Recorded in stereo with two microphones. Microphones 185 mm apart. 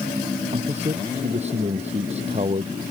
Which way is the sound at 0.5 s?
40° right (ahead or behind).